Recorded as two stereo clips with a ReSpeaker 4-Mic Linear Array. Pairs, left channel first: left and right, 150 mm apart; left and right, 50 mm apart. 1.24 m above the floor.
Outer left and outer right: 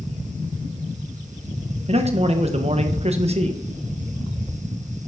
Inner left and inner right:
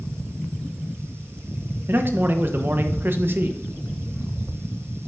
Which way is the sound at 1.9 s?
45° right (ahead or behind).